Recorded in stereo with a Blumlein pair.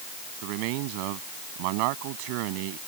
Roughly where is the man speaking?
Ahead right.